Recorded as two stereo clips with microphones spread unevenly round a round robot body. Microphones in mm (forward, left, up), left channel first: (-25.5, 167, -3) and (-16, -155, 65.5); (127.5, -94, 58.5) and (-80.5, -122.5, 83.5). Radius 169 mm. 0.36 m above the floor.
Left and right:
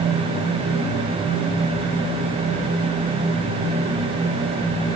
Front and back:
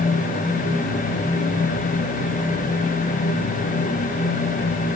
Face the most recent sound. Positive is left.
No sound to turn to.